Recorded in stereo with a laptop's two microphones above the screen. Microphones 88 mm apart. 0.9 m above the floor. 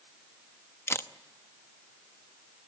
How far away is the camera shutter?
About 0.9 m.